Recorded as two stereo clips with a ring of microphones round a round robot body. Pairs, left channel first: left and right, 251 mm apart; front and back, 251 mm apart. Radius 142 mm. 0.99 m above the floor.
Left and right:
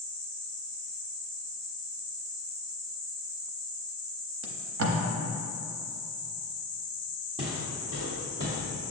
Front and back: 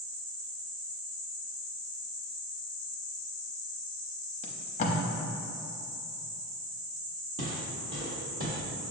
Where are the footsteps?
160° right, 1.5 m; by 8.8 s 125° right, 1.8 m.